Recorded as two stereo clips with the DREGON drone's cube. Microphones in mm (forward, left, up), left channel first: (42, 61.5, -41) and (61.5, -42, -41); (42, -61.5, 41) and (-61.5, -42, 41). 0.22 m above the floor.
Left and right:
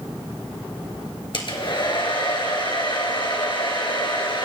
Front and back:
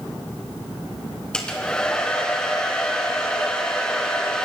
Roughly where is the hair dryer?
Left.